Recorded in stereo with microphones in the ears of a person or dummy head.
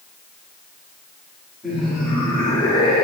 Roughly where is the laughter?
Centre.